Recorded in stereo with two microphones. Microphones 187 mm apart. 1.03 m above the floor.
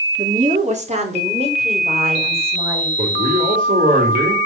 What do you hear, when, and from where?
0.2 s a woman speaking: 45° right (ahead or behind), 2.5 m; by 2.9 s 30° right (ahead or behind), 5.5 m
3.0 s a man speaking: 45° right (ahead or behind), 3.5 m